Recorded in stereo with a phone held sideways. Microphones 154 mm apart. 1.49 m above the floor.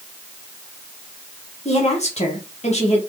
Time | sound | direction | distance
1.6 | a woman speaking | 45° left (ahead or behind) | 1.7 m